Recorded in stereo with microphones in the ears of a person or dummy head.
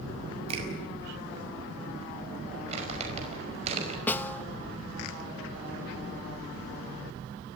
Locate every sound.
0.5 s a finger snap: 40° right (ahead or behind), 5.5 m
2.7 s crumpling: 45° right (ahead or behind), 5.5 m
4.1 s a snare drum: 5° left (ahead or behind), 0.9 m